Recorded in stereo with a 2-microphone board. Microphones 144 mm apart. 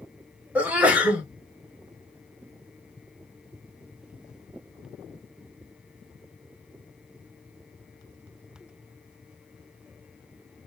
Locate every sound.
0.6 s a sneeze: 10° right (ahead or behind), 1.0 m